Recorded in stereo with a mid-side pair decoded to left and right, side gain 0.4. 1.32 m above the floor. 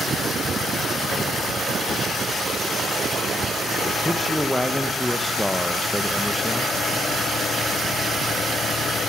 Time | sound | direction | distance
4.0 | a man speaking | straight ahead | 1.0 m